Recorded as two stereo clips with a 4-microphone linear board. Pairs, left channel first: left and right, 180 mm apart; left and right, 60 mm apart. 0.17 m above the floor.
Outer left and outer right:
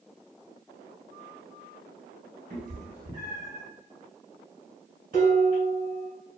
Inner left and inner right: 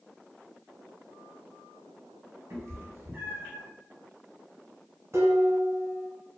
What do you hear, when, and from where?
2.5 s a cat meowing: 50° right (ahead or behind), 0.9 m; by 3.6 s 10° right (ahead or behind), 1.1 m
5.1 s dishes clattering: 50° right (ahead or behind), 1.2 m